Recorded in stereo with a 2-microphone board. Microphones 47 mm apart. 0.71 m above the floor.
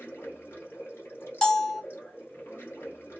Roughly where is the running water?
Left.